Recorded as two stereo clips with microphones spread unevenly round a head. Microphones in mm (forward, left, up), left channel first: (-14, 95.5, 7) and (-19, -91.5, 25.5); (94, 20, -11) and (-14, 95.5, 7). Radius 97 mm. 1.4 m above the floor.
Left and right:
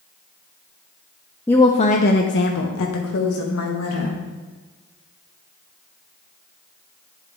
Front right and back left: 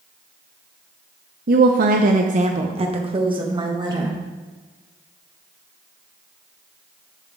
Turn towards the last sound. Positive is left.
turn(degrees=85)